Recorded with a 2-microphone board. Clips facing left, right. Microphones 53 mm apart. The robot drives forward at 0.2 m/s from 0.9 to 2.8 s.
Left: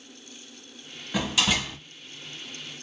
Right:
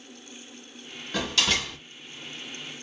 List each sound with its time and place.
1.1 s a door slam: 15° left (ahead or behind), 0.8 m; by 1.8 s 10° left (ahead or behind), 0.9 m